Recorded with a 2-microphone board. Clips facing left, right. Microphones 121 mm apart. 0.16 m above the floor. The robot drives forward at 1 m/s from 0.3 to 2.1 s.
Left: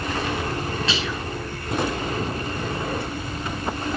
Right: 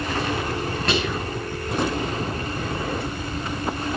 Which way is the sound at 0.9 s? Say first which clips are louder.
Right 3 dB; 50° right (ahead or behind).